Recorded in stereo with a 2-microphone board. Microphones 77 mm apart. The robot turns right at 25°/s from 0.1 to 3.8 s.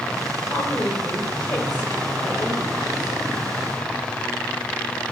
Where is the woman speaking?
40° left (ahead or behind), 1.9 m; by 3.2 s 65° left (ahead or behind), 1.9 m.